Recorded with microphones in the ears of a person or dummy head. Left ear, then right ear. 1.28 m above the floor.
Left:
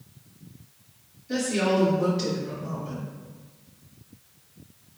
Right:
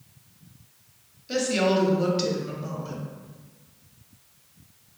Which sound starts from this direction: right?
A woman speaking, at 1.3 s.